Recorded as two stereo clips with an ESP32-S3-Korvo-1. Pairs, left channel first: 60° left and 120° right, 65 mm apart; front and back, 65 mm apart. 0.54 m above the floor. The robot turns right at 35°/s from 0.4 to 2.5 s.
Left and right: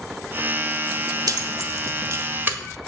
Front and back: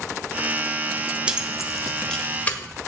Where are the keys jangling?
110° right, 1.3 m; by 2.6 s 65° right, 1.3 m.